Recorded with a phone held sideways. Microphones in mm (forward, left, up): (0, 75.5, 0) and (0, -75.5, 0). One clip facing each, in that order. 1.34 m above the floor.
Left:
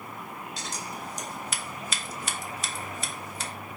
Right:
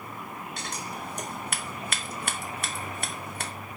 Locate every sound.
0.6 s scissors: 65° right (ahead or behind), 0.8 m